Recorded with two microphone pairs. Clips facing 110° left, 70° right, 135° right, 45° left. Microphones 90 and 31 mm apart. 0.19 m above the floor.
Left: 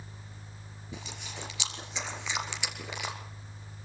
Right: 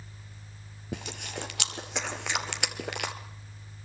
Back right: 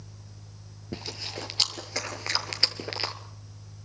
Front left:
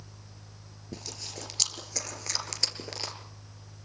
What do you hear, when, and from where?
0.9 s chewing: 90° right, 2.5 m